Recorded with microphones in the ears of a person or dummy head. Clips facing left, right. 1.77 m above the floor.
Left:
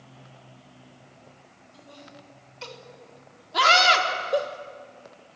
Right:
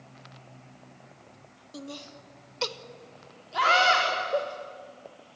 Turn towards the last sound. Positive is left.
turn(degrees=55)  # may be behind; listen again after turning